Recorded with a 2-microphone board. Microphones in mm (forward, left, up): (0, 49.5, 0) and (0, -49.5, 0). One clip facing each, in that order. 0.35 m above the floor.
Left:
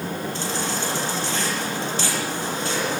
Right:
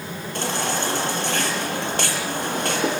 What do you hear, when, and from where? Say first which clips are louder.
0.3 s a baby crying: right 7 dB; 60° right (ahead or behind), 7 m